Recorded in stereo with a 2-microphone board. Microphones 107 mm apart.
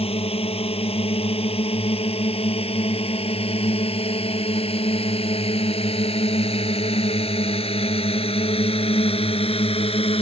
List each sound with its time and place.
0.0 s a drone: 65° left (ahead or behind); by 10.2 s 60° left (ahead or behind)